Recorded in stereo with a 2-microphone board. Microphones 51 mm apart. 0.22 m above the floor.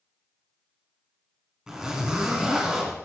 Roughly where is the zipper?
Centre.